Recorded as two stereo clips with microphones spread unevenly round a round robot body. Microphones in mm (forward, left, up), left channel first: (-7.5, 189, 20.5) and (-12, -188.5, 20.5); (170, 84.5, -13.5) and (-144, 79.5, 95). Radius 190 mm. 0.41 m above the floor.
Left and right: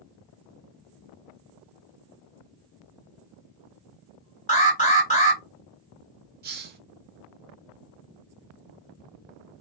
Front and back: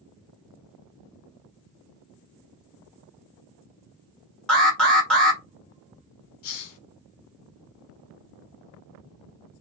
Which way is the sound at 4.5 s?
45° left.